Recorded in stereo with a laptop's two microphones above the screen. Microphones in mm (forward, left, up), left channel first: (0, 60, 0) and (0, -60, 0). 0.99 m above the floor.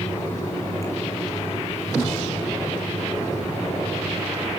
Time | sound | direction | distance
0.0 | a fan | 25° left (ahead or behind) | 4.5 m